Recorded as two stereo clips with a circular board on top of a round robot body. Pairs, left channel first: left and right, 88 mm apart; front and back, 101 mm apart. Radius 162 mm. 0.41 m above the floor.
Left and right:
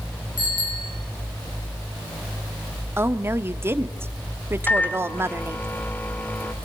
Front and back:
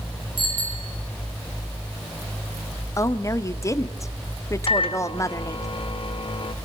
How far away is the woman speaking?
About 1.3 m.